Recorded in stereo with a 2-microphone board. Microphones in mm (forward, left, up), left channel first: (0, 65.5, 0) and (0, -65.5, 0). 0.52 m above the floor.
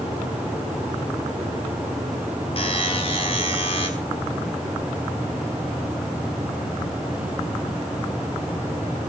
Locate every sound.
2.6 s a buzzer: 45° left (ahead or behind), 5 m